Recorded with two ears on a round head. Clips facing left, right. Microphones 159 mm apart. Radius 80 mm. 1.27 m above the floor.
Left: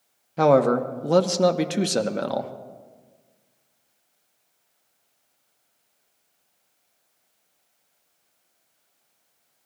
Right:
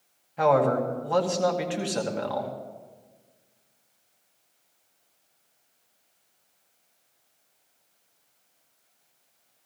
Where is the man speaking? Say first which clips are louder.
Left 4 dB; 50° left (ahead or behind), 1.1 m.